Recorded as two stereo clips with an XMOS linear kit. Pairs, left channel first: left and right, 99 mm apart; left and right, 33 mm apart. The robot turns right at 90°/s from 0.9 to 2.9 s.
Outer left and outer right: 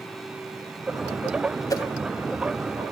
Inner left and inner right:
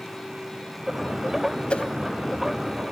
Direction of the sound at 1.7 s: 35° left (ahead or behind).